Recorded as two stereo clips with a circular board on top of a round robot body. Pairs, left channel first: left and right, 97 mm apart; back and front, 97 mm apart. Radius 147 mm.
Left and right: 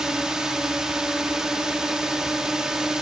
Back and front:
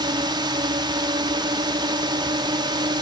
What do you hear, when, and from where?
0.0 s a drone: 5° right